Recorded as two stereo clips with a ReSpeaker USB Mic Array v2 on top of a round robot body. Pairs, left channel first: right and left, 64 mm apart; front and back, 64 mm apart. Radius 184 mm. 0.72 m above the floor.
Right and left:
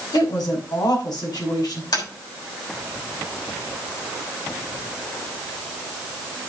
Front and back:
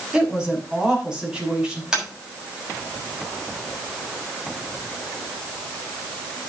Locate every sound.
0.1 s a woman speaking: 100° right, 5.5 m
1.9 s tapping: 100° right, 6.5 m